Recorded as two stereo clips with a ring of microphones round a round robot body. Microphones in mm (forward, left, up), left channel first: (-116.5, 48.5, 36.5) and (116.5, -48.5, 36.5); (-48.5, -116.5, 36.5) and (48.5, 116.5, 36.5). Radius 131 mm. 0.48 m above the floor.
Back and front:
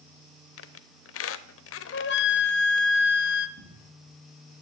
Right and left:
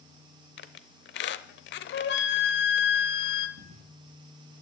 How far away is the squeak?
About 0.7 m.